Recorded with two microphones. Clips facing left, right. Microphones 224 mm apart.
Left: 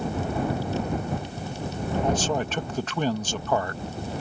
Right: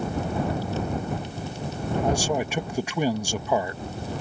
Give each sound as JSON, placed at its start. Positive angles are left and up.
{"t": 2.0, "sound": "a man speaking", "side_deg": -10}